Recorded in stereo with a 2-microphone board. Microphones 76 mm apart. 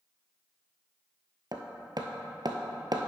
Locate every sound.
1.5 s hammering: 65° right (ahead or behind), 0.8 m